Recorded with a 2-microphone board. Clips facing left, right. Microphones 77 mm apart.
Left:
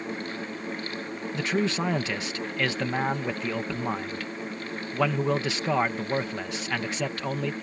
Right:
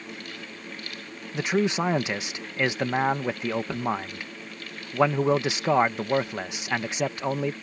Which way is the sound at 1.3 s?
15° right (ahead or behind).